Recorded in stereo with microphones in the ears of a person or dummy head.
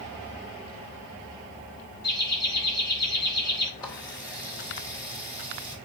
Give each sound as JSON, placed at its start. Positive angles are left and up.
{"t": 2.0, "sound": "laughter", "side_deg": 50, "distance_m": 5.5}
{"t": 3.8, "sound": "a running tap", "side_deg": 20, "distance_m": 3.0}